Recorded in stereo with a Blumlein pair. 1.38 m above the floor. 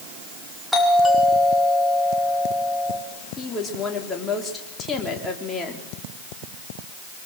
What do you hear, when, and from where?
0.7 s a doorbell: 5° left, 6 m
3.4 s a woman speaking: 15° left, 4 m